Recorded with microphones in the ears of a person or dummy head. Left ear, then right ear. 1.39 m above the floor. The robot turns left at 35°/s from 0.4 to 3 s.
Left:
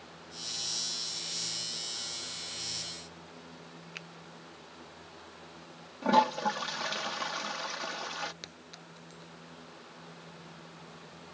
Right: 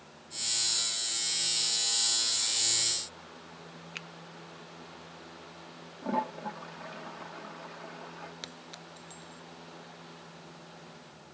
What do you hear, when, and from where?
4.0 s a finger snap: 15° right (ahead or behind)
6.0 s a toilet flushing: 85° left
8.4 s a clink: 20° right (ahead or behind)